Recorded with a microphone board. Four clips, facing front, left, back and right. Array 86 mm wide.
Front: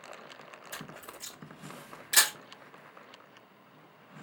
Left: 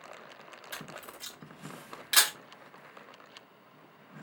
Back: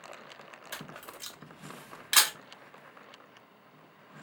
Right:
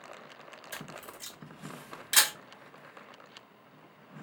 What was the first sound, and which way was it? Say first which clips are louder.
A camera shutter: even, back 1 dB; 165° left.